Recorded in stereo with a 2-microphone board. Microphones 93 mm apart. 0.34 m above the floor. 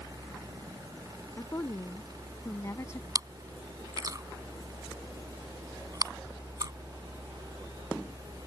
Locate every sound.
1.4 s a woman speaking: 30° left (ahead or behind)
3.1 s chewing: 40° right (ahead or behind)